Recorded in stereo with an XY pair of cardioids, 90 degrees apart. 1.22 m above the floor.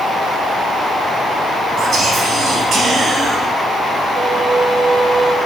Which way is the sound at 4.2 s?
60° right.